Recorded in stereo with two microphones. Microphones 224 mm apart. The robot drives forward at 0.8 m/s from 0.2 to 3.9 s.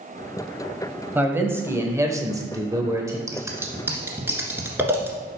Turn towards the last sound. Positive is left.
turn(degrees=-10)  # may be behind; listen again after turning